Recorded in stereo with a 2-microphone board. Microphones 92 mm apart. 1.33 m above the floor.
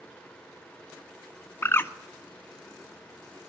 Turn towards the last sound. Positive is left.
turn(degrees=25)  # may be behind; listen again after turning